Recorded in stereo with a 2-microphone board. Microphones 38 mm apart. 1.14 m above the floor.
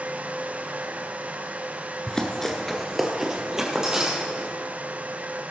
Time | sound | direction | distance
2.1 | running footsteps | 20° left (ahead or behind) | 1.1 m